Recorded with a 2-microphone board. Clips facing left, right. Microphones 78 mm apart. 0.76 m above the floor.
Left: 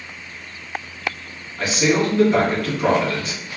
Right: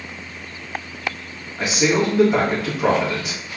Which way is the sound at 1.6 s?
20° right (ahead or behind).